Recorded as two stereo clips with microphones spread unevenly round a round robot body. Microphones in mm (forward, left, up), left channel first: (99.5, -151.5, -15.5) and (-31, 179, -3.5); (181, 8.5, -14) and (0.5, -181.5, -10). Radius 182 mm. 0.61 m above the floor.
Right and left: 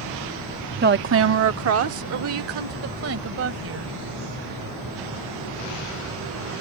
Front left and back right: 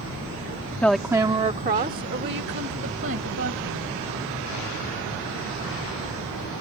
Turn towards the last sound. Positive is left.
turn(degrees=170)